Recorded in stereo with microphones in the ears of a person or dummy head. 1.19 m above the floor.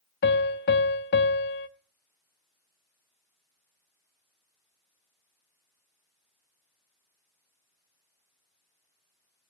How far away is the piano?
About 0.7 m.